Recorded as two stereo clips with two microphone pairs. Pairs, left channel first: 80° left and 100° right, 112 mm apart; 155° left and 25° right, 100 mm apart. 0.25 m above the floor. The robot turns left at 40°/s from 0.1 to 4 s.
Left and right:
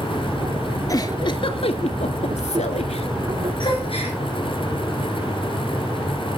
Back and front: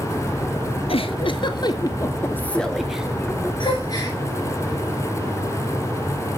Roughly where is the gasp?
Behind left.